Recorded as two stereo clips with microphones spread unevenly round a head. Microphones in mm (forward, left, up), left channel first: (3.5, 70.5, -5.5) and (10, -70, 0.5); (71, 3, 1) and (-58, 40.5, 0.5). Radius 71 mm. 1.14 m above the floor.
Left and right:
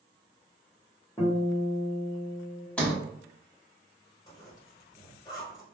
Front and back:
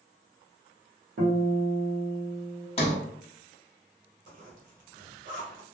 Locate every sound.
1.2 s a guitar: 165° left, 1.1 m
2.8 s a sliding door: 15° left, 0.8 m
4.3 s a zipper: 155° left, 1.2 m